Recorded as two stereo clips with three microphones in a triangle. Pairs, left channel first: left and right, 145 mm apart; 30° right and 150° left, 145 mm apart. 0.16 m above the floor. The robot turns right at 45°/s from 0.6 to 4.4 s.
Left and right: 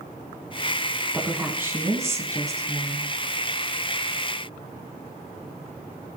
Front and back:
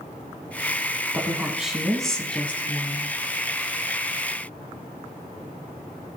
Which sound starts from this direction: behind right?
A woman speaking, at 1.1 s.